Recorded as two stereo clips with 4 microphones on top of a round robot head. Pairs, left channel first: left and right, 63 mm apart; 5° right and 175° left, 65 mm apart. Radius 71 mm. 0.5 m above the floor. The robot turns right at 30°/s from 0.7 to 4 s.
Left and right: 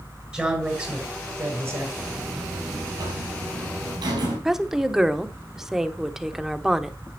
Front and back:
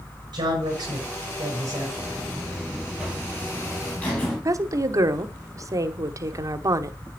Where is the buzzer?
135° right, 4.5 m; by 4.3 s 75° right, 4.5 m.